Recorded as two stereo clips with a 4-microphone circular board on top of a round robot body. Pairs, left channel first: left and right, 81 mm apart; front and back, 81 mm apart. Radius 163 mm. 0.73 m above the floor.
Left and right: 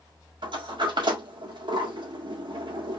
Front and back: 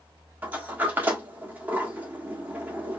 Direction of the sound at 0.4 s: 115° right.